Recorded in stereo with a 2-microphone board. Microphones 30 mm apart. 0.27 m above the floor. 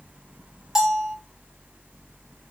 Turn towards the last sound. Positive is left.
turn(degrees=-15)  # may be behind; listen again after turning